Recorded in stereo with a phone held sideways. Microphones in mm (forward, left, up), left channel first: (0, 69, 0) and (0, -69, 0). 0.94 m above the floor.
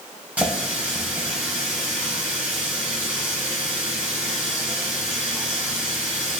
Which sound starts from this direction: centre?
A running tap, at 0.4 s.